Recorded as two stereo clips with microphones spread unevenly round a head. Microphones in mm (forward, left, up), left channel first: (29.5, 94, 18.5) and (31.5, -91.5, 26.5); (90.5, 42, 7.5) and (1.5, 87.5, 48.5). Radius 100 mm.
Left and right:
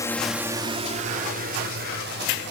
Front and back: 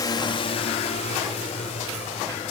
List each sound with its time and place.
0.0 s a drone: 20° left; by 2.5 s 60° right